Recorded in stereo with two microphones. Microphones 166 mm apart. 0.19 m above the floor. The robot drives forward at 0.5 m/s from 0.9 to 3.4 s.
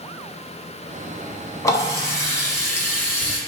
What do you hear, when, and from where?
1.6 s a running tap: 20° left (ahead or behind), 1.1 m; by 3.4 s 15° left (ahead or behind), 1.7 m